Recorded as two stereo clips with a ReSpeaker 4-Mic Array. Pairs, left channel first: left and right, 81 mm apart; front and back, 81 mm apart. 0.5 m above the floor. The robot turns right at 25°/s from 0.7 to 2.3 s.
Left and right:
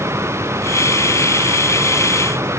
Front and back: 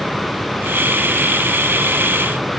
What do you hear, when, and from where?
Only background noise.